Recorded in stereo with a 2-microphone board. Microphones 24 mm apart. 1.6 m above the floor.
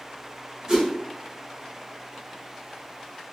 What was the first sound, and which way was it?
A whoosh, 35° right (ahead or behind).